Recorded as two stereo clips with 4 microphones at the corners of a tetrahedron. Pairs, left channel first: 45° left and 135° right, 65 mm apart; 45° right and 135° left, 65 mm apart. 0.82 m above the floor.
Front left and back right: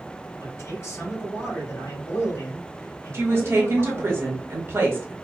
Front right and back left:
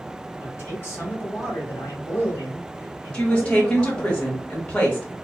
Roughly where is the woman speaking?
Right.